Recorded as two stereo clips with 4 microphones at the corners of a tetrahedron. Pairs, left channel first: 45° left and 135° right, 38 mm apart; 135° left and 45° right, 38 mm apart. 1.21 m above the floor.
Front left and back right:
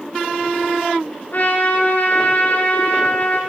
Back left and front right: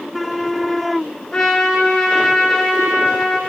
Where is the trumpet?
75° left, 1.9 m.